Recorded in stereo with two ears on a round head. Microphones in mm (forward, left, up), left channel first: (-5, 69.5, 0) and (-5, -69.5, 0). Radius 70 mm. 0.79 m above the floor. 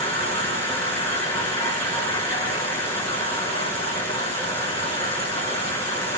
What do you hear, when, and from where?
0.0 s an insect: 15° left (ahead or behind), 1.6 m